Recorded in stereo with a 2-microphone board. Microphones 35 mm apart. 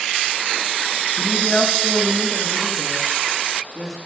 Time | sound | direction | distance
1.1 | a woman speaking | 40° left (ahead or behind) | 1.4 m